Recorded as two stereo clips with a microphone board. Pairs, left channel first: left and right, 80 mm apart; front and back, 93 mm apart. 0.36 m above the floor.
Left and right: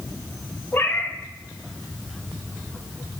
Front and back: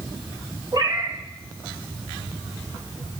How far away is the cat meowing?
About 0.8 m.